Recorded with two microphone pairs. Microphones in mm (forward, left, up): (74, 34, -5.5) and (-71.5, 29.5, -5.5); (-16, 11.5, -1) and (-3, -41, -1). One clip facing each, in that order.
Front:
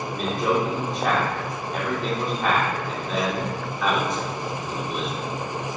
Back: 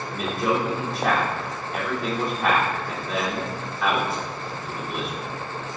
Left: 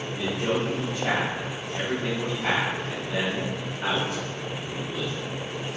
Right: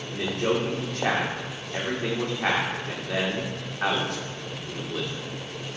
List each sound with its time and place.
0.1 s a man speaking: 90° right, 2.5 m